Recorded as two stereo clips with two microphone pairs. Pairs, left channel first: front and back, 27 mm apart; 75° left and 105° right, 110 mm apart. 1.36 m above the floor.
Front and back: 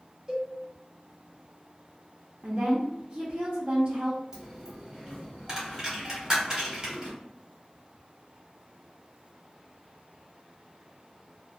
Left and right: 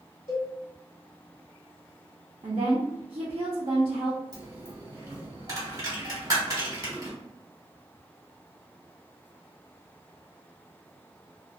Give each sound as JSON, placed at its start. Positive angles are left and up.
{"t": 0.3, "sound": "a cowbell", "azimuth_deg": 110, "distance_m": 1.5}
{"t": 2.4, "sound": "a woman speaking", "azimuth_deg": -145, "distance_m": 0.6}
{"t": 4.3, "sound": "a dropped coin", "azimuth_deg": -130, "distance_m": 1.2}